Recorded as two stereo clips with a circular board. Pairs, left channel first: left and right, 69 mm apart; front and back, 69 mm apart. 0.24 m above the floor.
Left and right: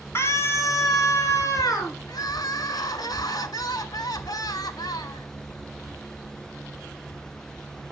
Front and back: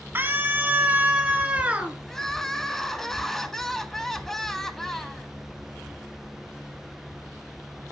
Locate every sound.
0.1 s a scream: 130° left, 2 m; by 2.0 s 110° left, 3.5 m
2.1 s crying: 85° left, 0.9 m